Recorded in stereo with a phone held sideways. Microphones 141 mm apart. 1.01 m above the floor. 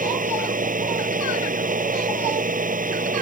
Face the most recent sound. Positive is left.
turn(degrees=-75)  # may be behind; listen again after turning